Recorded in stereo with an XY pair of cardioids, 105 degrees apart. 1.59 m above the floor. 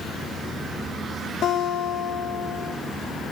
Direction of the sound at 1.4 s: 65° left.